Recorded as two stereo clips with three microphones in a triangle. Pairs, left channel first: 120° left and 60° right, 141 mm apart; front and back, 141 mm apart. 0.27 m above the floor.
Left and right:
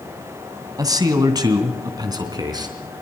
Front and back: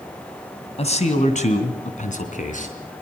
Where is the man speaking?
5° right, 2.5 m; by 2.8 s straight ahead, 4 m.